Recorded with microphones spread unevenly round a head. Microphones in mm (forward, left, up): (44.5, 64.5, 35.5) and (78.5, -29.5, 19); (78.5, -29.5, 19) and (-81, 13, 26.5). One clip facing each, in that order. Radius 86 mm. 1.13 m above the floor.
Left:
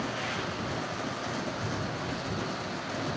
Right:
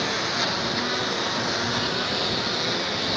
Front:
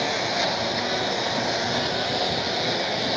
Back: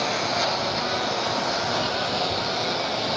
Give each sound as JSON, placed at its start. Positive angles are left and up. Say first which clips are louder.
{"t": 0.0, "sound": "a lawn mower", "louder": "right 6 dB, even", "azimuth_deg": -95}